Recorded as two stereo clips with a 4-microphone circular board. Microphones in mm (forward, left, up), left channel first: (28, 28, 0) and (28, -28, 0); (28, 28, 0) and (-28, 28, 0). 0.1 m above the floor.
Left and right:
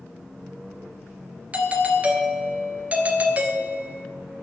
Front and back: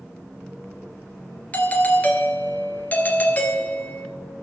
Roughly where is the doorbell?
Ahead right.